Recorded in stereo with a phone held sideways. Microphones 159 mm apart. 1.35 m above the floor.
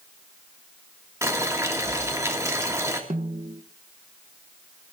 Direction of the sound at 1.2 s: 20° right (ahead or behind).